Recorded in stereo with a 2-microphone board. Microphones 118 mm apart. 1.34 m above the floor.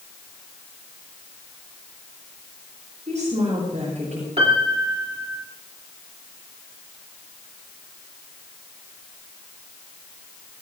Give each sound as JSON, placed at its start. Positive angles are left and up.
{"t": 3.1, "sound": "a woman speaking", "side_deg": -80, "distance_m": 6.5}
{"t": 4.4, "sound": "a piano", "side_deg": -55, "distance_m": 2.5}